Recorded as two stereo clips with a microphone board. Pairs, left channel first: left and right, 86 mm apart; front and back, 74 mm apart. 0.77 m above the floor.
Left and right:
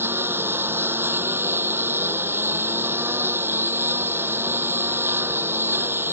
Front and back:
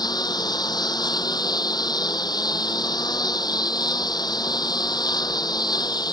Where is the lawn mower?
25° right.